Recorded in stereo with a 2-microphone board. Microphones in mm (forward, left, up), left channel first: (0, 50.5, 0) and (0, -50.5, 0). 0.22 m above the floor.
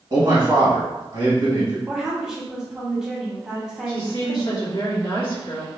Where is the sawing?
I don't hear sawing.